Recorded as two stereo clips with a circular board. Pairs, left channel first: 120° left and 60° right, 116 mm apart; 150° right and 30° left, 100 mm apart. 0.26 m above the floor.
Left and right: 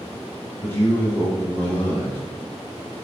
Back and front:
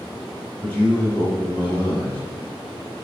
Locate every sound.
0.6 s a man speaking: 160° left, 1.1 m